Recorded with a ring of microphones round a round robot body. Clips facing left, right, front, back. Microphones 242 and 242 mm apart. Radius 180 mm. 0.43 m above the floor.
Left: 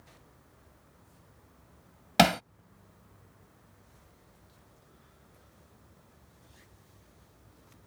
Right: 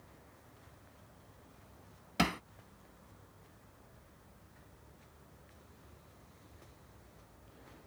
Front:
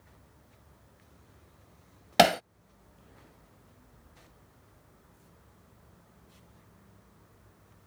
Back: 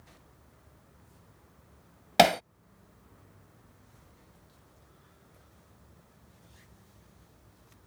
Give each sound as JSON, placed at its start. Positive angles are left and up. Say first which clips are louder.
{"t": 2.2, "sound": "hammering", "louder": "left 9 dB, even", "azimuth_deg": 85}